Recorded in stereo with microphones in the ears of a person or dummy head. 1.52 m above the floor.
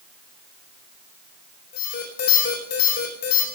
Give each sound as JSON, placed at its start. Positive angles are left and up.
{"t": 1.7, "sound": "an alarm", "side_deg": 55, "distance_m": 4.5}